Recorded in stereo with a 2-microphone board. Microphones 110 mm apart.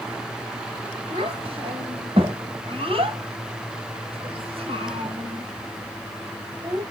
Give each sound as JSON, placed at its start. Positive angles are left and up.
{"t": 1.1, "sound": "a child speaking", "side_deg": -60, "distance_m": 1.5}